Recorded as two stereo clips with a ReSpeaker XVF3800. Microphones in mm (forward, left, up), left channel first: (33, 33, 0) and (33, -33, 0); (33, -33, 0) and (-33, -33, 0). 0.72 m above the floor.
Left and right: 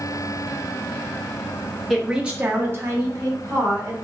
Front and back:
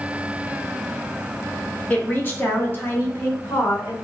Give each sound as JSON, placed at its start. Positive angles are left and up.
{"t": 1.9, "sound": "a woman speaking", "azimuth_deg": 10, "distance_m": 0.8}